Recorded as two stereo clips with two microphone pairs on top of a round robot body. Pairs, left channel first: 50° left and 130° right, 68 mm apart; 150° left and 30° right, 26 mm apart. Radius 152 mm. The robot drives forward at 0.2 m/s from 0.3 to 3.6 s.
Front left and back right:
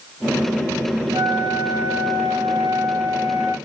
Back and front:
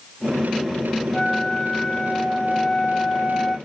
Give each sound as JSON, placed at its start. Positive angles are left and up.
{"t": 1.1, "sound": "a flute", "azimuth_deg": -145, "distance_m": 0.5}